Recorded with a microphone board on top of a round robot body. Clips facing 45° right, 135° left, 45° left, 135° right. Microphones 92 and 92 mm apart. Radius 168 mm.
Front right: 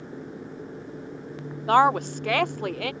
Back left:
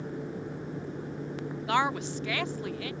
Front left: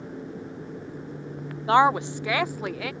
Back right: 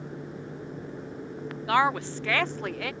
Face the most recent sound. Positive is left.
turn(degrees=-45)